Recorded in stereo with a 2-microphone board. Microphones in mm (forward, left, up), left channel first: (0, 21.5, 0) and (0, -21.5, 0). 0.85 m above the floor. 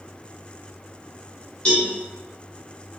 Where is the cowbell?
25° left (ahead or behind), 2 m.